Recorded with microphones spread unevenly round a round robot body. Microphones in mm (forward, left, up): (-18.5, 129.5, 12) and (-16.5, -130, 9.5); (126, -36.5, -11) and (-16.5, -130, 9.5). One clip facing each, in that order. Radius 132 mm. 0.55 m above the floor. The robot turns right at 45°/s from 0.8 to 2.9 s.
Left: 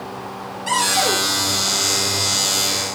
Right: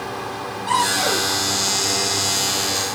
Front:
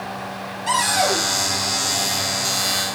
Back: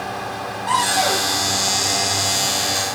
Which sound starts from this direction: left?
A cupboard door, at 0.7 s.